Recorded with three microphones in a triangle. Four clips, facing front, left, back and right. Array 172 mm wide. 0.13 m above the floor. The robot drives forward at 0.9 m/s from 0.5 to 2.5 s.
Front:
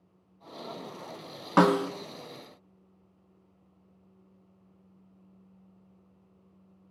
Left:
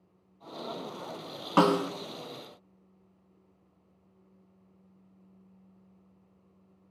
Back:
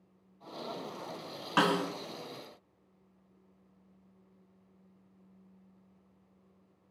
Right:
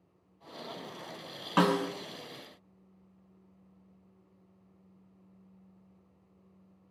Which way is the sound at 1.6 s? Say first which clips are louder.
Left 3 dB, front 6 dB; 35° left.